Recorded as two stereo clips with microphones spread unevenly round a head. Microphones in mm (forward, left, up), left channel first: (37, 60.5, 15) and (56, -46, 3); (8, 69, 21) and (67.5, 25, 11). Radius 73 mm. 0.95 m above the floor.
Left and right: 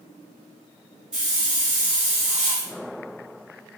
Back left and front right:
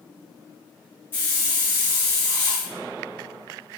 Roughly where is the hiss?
Behind.